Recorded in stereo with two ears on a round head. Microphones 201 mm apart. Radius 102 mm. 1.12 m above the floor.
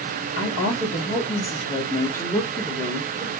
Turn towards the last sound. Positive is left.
turn(degrees=-15)  # may be behind; listen again after turning